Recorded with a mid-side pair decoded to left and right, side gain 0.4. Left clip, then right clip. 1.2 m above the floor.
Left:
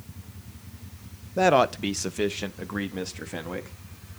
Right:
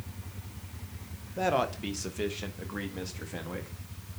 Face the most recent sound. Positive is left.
turn(degrees=45)